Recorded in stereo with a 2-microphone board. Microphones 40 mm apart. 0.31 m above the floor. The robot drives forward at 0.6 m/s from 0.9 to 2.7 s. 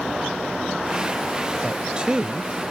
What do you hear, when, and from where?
1.6 s a man speaking: 25° right (ahead or behind)